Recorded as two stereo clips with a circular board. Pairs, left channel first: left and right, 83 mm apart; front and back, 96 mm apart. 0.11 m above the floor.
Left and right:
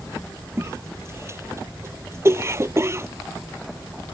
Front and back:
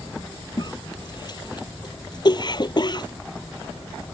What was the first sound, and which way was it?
A cough, 35° right.